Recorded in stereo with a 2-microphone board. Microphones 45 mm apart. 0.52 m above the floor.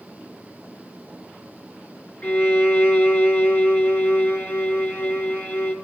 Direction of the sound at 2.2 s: 40° left (ahead or behind).